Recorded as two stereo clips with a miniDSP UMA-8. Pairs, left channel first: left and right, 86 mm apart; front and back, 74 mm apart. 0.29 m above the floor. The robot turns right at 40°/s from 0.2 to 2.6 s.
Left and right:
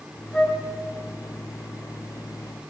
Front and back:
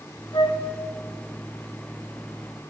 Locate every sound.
0.3 s a flute: 5° left, 0.7 m; by 0.6 s 15° left, 0.7 m